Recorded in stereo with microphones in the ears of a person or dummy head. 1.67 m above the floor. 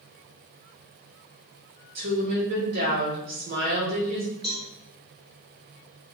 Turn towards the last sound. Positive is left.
turn(degrees=0)  # may be behind; listen again after turning